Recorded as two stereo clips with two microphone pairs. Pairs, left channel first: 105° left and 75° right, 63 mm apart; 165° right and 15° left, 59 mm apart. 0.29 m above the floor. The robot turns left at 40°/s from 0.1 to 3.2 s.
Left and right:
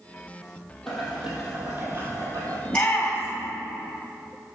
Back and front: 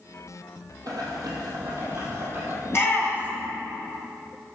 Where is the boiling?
20° left, 2.5 m; by 2.5 s 45° right, 2.5 m.